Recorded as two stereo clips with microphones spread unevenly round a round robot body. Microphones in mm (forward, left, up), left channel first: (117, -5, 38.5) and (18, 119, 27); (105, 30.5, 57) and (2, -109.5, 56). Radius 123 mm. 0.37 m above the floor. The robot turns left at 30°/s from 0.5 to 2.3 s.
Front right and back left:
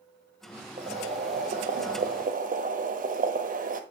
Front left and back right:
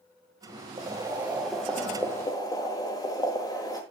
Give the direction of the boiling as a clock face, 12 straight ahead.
6 o'clock.